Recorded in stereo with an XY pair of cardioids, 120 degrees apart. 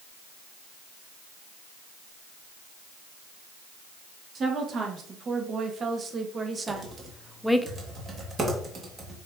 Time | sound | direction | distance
4.3 | a woman speaking | 40° right | 2.5 m
6.7 | typing on a keyboard | 30° right | 2 m